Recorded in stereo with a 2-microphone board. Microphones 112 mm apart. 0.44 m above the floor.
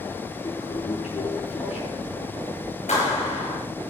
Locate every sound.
0.4 s a toilet flushing: 70° left (ahead or behind), 7 m
2.9 s a clap: 85° left, 6.5 m